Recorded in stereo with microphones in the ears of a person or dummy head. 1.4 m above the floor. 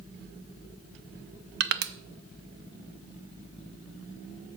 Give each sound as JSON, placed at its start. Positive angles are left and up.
{"t": 1.6, "sound": "crushing", "side_deg": -55, "distance_m": 0.5}